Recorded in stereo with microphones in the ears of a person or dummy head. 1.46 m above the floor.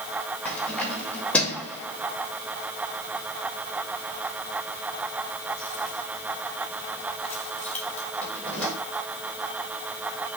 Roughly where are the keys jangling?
Centre.